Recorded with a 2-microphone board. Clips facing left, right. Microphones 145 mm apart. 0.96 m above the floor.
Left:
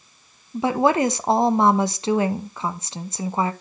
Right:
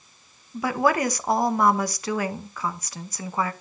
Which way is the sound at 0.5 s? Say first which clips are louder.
Left 4 dB; 25° left (ahead or behind).